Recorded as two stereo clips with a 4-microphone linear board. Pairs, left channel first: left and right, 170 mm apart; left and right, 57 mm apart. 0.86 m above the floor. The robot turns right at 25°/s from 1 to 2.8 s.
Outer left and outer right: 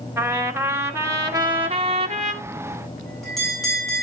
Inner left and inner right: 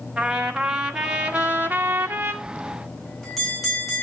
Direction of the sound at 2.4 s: 10° left (ahead or behind).